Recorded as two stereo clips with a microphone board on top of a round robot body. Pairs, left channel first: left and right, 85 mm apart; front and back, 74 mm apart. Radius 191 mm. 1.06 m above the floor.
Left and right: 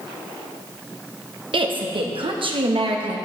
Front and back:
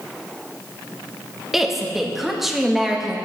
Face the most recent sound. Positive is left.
turn(degrees=-95)